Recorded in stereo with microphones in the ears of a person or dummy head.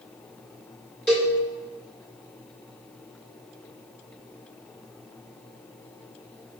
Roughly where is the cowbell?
Centre.